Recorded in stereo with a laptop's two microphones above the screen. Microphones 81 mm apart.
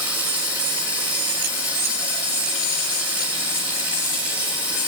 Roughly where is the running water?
Centre.